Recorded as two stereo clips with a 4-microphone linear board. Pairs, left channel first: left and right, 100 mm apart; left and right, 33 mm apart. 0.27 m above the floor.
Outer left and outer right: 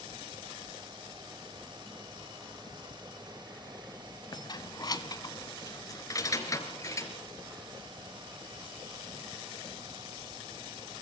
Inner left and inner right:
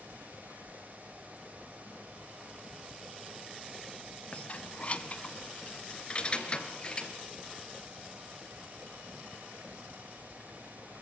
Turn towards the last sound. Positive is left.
turn(degrees=30)  # may be behind; listen again after turning